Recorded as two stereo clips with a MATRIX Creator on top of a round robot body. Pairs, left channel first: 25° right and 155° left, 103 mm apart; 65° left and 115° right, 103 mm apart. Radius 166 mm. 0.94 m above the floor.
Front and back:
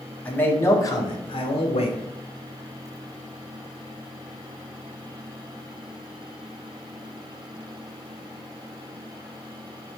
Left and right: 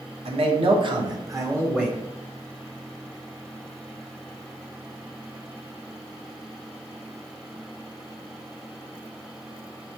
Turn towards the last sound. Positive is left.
turn(degrees=-30)